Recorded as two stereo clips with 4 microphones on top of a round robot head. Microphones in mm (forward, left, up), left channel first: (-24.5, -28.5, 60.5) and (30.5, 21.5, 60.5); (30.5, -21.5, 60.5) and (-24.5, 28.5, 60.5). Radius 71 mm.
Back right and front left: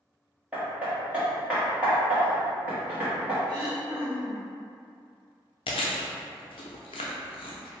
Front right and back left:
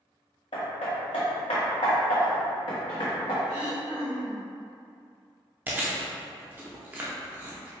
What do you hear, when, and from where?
0.5 s hammering: 30° right, 1.1 m
3.5 s throat clearing: 105° left, 1.5 m
5.7 s chewing: 155° right, 0.5 m